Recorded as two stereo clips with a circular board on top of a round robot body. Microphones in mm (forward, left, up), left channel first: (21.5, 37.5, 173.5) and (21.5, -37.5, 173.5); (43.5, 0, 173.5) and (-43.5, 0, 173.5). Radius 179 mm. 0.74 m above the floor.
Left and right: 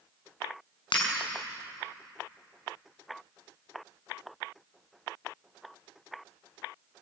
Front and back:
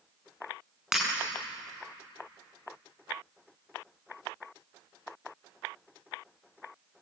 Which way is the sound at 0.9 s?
95° left.